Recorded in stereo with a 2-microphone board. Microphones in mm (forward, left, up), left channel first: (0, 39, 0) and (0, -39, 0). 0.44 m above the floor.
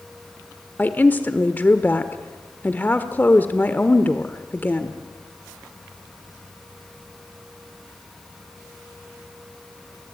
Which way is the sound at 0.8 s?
25° left (ahead or behind).